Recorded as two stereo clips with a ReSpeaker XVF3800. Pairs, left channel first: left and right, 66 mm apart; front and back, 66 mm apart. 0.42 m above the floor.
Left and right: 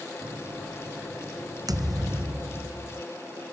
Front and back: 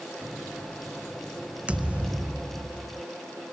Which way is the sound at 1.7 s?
110° right.